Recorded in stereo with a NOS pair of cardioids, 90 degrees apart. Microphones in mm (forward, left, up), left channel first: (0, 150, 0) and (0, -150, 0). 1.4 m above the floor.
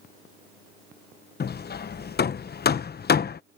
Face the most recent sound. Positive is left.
turn(degrees=35)